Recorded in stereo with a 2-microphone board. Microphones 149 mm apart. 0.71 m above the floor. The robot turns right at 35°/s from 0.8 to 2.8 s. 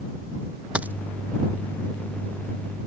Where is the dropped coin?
10° right (ahead or behind); by 0.9 s 15° right (ahead or behind).